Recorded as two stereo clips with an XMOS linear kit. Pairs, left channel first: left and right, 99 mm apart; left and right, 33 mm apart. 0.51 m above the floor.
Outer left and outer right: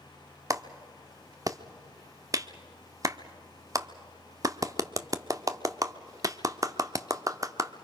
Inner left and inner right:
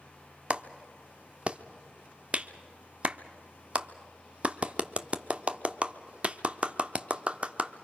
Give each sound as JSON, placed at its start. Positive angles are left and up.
{"t": 0.5, "sound": "a clap", "side_deg": -35, "distance_m": 0.8}